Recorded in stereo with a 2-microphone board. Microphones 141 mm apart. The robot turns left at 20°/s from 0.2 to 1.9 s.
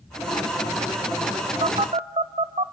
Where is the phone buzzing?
45° right (ahead or behind), 0.6 m.